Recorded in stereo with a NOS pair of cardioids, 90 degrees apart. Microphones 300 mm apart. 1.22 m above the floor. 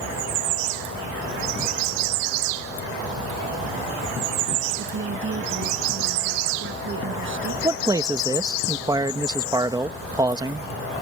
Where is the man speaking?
15° right.